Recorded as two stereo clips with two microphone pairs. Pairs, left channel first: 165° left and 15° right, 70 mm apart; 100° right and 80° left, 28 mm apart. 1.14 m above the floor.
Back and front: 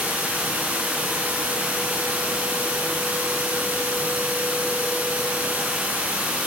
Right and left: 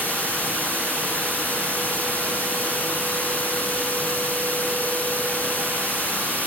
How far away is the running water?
About 8.5 m.